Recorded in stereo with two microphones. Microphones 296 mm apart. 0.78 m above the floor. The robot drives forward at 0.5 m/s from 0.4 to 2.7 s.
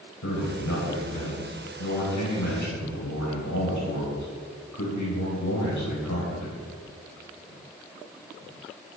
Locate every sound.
0.2 s a man speaking: 80° left, 3.5 m; by 6.6 s 75° left (ahead or behind), 3.5 m